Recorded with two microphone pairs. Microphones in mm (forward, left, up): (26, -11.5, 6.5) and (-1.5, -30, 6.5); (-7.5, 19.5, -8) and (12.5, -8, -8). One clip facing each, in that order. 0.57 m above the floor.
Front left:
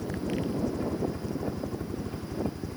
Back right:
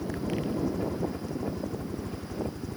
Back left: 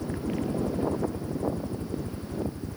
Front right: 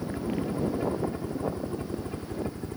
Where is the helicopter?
85° right; by 2.8 s 45° right.